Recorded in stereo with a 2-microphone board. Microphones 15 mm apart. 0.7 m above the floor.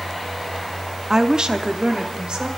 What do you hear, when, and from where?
1.1 s a woman speaking: 30° right (ahead or behind), 0.7 m; by 2.5 s 60° right (ahead or behind), 2.5 m